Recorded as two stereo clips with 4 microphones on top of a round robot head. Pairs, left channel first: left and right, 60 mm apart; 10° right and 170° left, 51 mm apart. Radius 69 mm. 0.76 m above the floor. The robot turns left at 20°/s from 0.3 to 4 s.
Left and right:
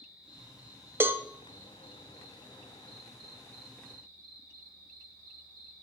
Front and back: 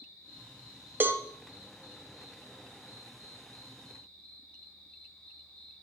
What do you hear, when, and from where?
0.0 s an insect: 10° right, 1.9 m; by 5.8 s 80° right, 1.9 m
1.0 s a cowbell: 145° right, 0.5 m